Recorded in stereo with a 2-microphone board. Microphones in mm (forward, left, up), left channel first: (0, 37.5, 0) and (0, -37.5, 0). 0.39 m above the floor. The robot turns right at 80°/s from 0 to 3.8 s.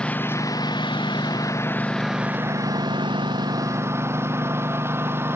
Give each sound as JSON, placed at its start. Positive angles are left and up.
{"t": 0.0, "sound": "a lawn mower", "side_deg": 10}